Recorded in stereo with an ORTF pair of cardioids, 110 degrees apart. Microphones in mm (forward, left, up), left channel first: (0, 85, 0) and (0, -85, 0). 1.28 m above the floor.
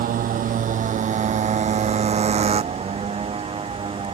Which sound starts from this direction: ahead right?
A motorcycle, at 0.0 s.